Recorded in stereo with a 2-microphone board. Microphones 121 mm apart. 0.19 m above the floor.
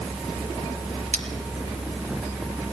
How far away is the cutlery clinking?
About 2 m.